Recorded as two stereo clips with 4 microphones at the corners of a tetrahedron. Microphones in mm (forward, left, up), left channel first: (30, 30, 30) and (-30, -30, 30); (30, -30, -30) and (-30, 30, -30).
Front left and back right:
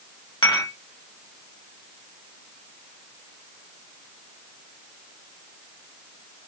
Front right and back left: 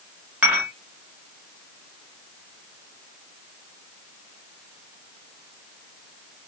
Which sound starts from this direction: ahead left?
Dishes clattering, at 0.4 s.